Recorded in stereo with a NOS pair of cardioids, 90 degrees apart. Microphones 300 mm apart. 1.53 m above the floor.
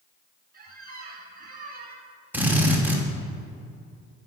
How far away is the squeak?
About 2.5 m.